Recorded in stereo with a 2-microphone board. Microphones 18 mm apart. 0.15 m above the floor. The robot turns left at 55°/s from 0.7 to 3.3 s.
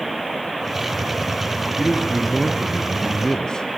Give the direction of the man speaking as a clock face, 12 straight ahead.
5 o'clock.